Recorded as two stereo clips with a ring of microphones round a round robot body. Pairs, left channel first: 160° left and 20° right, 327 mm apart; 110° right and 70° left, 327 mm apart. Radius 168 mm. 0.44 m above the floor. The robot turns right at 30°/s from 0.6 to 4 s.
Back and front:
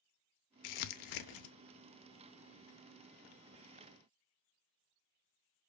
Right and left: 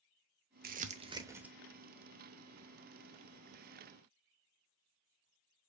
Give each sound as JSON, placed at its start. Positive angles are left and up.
{"t": 0.6, "sound": "crumpling", "azimuth_deg": 130, "distance_m": 0.7}